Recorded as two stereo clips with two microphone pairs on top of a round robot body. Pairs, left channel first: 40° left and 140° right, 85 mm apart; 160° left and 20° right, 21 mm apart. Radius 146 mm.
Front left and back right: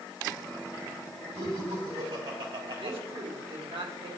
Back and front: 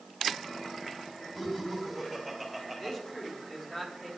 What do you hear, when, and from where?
1.4 s laughter: 135° right, 4.5 m; by 3.0 s 125° right, 4.5 m
2.8 s a man speaking: 135° right, 3 m